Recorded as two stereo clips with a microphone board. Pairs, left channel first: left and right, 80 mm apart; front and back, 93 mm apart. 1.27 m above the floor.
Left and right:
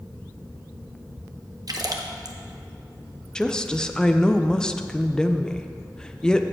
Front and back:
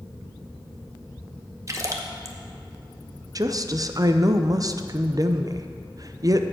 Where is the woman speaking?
165° left, 0.5 m.